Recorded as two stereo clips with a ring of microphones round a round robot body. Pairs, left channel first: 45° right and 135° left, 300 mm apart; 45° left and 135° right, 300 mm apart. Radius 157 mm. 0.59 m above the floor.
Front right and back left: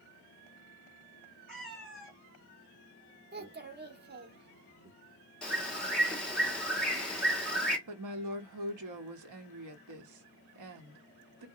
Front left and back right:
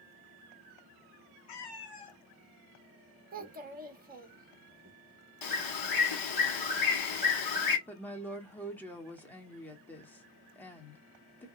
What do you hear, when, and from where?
1.5 s a cat meowing: 45° left, 1.5 m
3.3 s a child speaking: 175° left, 0.9 m
5.4 s a bird: 45° left, 1.4 m
7.9 s a woman speaking: 130° left, 1.0 m